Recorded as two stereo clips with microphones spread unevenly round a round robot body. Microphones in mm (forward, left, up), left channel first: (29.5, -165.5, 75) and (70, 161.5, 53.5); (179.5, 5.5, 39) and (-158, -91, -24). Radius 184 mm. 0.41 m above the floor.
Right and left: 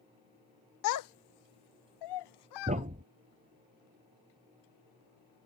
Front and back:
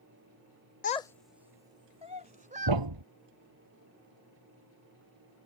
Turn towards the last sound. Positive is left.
turn(degrees=155)